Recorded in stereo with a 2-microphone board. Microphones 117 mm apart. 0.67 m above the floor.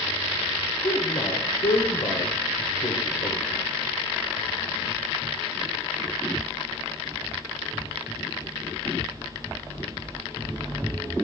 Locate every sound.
0.8 s a man speaking: 70° left (ahead or behind), 2.5 m